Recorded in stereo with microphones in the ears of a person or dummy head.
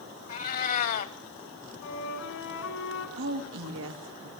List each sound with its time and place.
0.3 s a cat meowing: 50° left (ahead or behind), 1.3 m
1.8 s a flute: 75° left (ahead or behind), 3.5 m
3.2 s a woman speaking: 75° right (ahead or behind), 2.5 m